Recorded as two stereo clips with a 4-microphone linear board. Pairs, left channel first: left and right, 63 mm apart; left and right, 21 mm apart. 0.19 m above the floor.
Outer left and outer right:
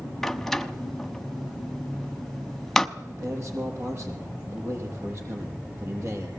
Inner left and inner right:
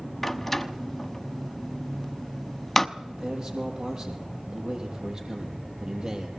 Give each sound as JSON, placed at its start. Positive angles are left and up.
{"t": 0.2, "sound": "a door slam", "side_deg": 5, "distance_m": 0.9}
{"t": 3.0, "sound": "a man speaking", "side_deg": -45, "distance_m": 5.5}